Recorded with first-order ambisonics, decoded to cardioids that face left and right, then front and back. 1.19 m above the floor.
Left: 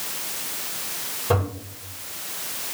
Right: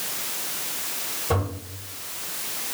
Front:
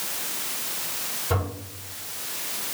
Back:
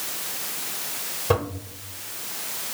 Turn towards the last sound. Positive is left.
turn(degrees=155)